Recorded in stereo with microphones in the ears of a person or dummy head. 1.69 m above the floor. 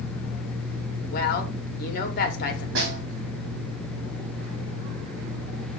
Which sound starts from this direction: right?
A snare drum, at 2.8 s.